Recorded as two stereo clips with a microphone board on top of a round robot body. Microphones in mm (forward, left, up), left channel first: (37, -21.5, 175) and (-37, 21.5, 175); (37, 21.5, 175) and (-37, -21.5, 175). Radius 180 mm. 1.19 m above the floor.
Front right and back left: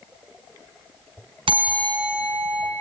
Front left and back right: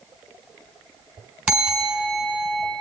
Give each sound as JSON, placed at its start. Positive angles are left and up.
{"t": 1.5, "sound": "a bell", "azimuth_deg": 135, "distance_m": 4.0}